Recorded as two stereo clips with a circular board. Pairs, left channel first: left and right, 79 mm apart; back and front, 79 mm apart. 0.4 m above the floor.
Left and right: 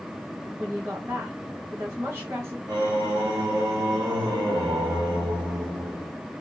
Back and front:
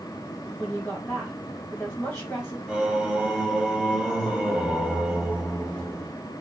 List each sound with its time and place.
0.6 s a woman speaking: 115° right, 1.7 m
2.7 s singing: 80° right, 1.0 m